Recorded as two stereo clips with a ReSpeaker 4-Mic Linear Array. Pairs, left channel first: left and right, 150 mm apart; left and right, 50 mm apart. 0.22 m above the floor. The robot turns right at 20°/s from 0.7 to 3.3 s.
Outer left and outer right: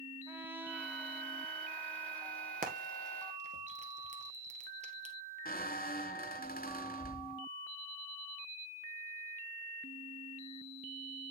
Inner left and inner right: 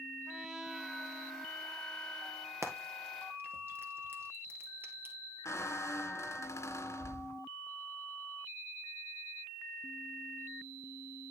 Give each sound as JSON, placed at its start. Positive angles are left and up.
{"t": 0.3, "sound": "a trumpet", "azimuth_deg": -15, "distance_m": 2.0}
{"t": 2.6, "sound": "frying", "side_deg": -60, "distance_m": 1.8}
{"t": 5.5, "sound": "a squeak", "side_deg": 65, "distance_m": 0.9}